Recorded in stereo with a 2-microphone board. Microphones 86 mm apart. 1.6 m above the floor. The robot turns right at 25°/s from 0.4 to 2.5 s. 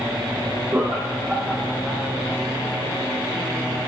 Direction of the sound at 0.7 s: 25° right (ahead or behind).